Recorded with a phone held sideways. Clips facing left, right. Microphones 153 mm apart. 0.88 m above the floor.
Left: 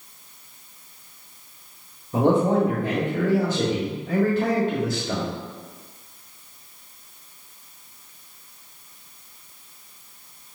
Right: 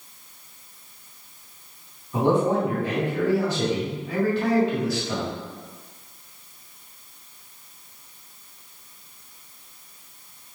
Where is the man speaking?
50° left (ahead or behind), 1.3 m.